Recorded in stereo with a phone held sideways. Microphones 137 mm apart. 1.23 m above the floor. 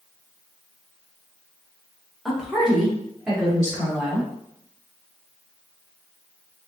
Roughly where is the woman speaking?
Centre.